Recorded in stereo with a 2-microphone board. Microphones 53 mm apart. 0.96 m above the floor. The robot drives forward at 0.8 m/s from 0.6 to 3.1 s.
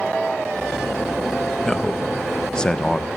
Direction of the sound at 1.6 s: 10° left (ahead or behind).